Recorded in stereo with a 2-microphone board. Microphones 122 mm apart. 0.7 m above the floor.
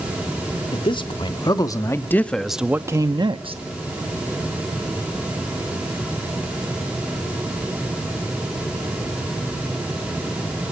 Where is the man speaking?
45° left (ahead or behind), 1.5 m; by 3.6 s 55° right (ahead or behind), 0.9 m.